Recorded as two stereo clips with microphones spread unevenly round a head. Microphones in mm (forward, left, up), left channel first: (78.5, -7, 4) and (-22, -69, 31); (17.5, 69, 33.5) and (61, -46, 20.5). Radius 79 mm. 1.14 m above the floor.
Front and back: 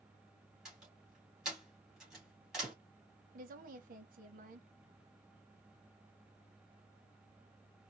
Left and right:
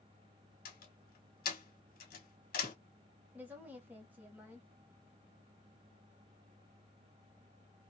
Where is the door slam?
120° left, 1.5 m.